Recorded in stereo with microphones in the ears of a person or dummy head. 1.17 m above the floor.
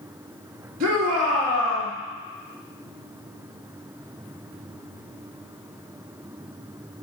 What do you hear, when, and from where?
0.8 s a shout: 45° right (ahead or behind), 2.5 m